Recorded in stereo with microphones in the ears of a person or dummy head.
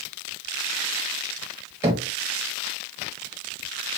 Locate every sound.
1.8 s knocking: 15° right (ahead or behind), 0.6 m